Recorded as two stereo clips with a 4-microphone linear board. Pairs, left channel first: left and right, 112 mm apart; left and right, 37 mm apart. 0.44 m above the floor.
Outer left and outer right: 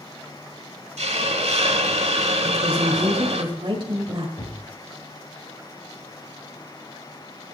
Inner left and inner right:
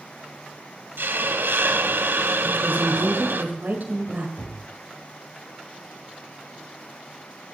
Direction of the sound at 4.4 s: 60° left (ahead or behind).